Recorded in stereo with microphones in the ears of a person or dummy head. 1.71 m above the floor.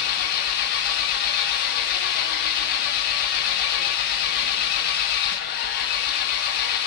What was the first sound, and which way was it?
An engine running, 55° left (ahead or behind).